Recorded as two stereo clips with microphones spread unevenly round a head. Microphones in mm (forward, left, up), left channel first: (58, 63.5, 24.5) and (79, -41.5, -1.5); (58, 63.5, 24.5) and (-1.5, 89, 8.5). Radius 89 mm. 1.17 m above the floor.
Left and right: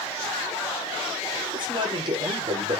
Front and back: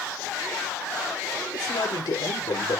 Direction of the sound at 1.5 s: 40° right.